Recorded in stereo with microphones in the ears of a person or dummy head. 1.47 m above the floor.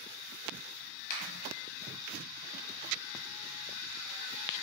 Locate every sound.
1.1 s a finger snap: 45° left (ahead or behind), 1.1 m